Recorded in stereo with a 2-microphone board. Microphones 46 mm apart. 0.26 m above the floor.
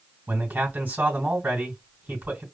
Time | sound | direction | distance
0.3 | a man speaking | 40° right (ahead or behind) | 2.5 m